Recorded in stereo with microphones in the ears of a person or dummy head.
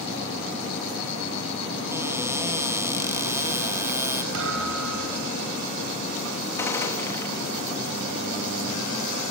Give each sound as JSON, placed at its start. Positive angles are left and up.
{"t": 1.9, "sound": "a cupboard door", "side_deg": -15, "distance_m": 0.9}
{"t": 4.3, "sound": "a thud", "side_deg": -75, "distance_m": 4.0}
{"t": 6.6, "sound": "a gunshot", "side_deg": 15, "distance_m": 2.5}